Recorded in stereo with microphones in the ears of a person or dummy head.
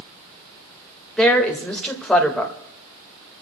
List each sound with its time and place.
1.2 s a woman speaking: 5° right (ahead or behind), 1.8 m